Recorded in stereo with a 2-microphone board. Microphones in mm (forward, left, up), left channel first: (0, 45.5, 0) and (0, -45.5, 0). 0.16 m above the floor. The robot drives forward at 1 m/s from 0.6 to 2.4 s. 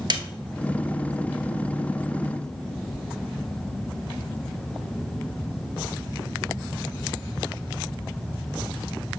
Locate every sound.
0.1 s a snare drum: 55° right (ahead or behind), 0.7 m